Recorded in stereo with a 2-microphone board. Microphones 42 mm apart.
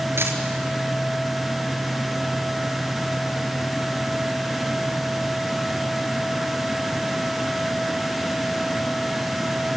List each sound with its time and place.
0.2 s a dropped coin: 80° right, 4 m